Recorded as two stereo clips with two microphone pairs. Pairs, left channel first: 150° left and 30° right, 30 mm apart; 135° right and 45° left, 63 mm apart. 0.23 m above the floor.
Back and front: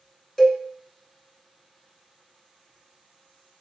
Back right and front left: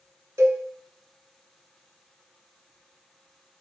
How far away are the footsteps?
I don't hear footsteps.